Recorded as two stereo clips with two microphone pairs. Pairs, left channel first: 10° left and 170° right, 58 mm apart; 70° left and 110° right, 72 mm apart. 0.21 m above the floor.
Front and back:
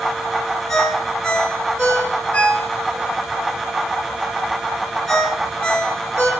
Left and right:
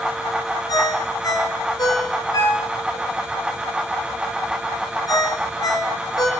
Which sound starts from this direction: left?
A ringtone, at 0.7 s.